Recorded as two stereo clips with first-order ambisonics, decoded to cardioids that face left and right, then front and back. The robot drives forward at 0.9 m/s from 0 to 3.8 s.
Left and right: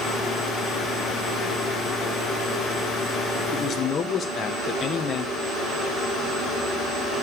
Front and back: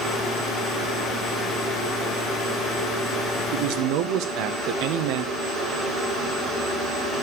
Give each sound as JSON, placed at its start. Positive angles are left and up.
{"t": 3.5, "sound": "a man speaking", "azimuth_deg": 150, "distance_m": 1.0}